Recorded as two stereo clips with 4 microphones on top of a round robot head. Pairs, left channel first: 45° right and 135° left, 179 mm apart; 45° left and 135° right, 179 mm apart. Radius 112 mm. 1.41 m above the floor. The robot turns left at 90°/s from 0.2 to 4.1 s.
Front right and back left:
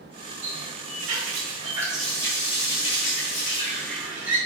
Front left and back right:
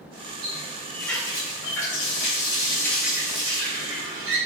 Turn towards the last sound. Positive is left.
turn(degrees=-145)